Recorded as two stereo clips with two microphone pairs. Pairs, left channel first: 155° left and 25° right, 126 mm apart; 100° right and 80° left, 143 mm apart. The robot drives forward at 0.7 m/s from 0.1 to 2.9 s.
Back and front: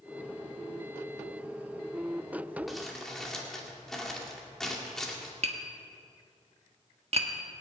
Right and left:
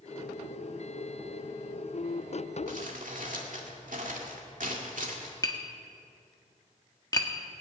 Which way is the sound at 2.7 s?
65° left.